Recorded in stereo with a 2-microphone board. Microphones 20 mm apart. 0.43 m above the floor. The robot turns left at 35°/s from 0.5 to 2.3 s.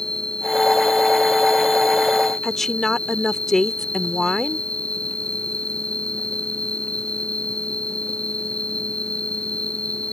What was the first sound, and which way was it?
An insect, 130° left.